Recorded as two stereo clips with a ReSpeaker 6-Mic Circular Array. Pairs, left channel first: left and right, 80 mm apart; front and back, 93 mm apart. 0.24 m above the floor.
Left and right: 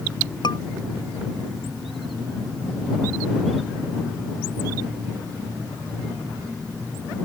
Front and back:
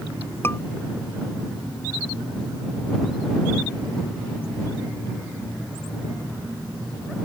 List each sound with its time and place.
0.4 s a scream: 65° left